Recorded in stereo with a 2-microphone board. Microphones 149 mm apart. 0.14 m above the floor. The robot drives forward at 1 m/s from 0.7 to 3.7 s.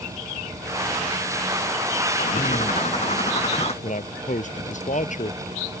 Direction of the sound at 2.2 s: 55° left (ahead or behind).